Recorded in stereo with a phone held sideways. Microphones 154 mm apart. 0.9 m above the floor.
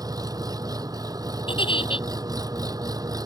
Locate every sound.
0.0 s an engine running: 20° right (ahead or behind)
1.5 s a giggle: 30° left (ahead or behind)